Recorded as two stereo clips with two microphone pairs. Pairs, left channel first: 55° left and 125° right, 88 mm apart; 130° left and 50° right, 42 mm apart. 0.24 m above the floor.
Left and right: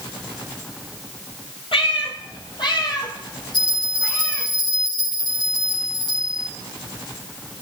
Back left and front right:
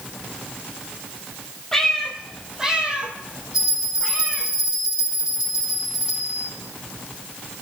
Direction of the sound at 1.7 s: 50° left.